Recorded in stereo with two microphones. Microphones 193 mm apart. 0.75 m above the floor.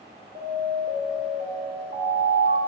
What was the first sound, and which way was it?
An alarm, 50° right (ahead or behind).